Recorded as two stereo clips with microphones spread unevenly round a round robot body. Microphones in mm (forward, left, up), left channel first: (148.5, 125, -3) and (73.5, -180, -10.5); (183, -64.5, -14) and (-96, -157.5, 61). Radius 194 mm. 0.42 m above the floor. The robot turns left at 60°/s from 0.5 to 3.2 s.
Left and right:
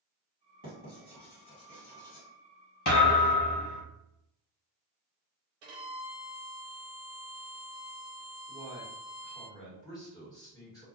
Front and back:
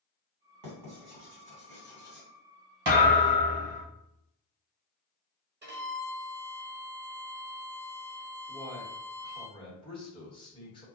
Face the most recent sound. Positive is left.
turn(degrees=5)